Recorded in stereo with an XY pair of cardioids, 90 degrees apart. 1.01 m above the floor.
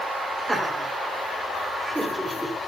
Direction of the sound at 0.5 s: 20° right.